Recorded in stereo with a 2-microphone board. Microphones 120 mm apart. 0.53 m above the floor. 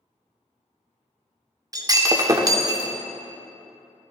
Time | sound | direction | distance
1.7 | breaking glass | 30° right (ahead or behind) | 0.6 m